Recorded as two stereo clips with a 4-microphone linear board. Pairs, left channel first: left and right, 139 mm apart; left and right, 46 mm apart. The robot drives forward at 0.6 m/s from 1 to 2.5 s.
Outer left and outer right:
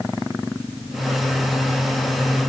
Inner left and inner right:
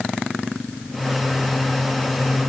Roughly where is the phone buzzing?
I don't hear a phone buzzing.